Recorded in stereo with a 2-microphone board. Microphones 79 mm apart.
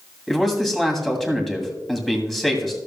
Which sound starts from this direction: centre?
A man speaking, at 0.3 s.